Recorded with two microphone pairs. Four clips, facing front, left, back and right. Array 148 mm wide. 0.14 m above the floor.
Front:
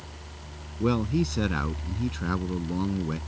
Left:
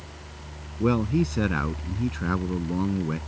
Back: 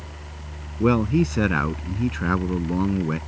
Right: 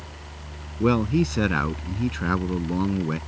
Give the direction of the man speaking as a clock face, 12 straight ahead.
5 o'clock.